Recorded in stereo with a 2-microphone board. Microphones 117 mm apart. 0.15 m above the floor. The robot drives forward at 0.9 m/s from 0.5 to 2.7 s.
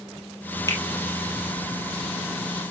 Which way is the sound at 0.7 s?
25° left (ahead or behind).